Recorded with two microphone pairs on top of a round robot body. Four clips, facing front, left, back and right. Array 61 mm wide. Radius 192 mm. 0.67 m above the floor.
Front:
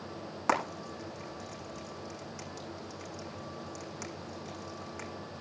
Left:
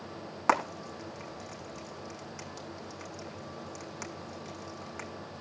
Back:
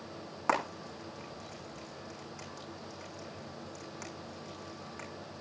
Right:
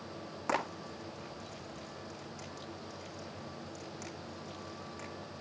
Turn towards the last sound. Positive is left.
turn(degrees=90)